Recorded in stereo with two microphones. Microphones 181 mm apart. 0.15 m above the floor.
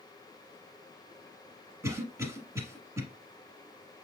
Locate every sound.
1.8 s a cough: 15° right (ahead or behind), 1.0 m